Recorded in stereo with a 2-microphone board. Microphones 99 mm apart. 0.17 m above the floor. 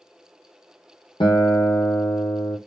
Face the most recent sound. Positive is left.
turn(degrees=55)  # may be behind; listen again after turning